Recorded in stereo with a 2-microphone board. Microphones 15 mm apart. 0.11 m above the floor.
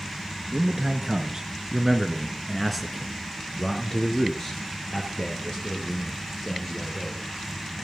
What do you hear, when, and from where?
0.5 s a man speaking: 45° right (ahead or behind), 2.5 m; by 7.2 s 50° left (ahead or behind), 4 m